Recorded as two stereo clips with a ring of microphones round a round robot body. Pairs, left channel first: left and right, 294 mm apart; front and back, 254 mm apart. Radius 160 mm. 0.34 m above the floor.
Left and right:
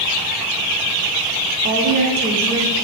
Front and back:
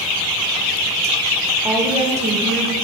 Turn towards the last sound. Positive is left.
turn(degrees=-170)